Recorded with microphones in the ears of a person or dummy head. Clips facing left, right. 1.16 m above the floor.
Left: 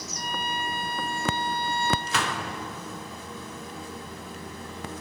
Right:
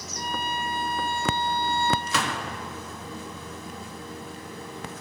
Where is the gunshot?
80° right, 1.9 m.